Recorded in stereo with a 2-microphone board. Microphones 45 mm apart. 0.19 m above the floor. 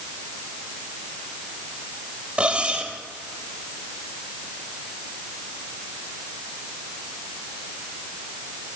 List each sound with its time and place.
2.4 s cutlery clinking: 25° right (ahead or behind), 3.5 m